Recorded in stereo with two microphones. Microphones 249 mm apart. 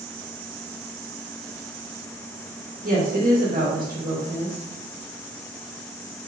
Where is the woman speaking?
35° right (ahead or behind), 2 m.